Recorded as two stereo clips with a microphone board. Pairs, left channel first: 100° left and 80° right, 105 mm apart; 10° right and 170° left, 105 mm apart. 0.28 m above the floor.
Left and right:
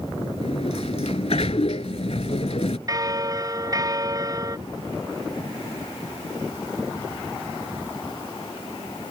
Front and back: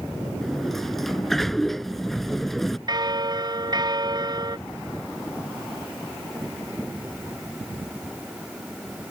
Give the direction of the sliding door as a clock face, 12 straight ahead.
9 o'clock.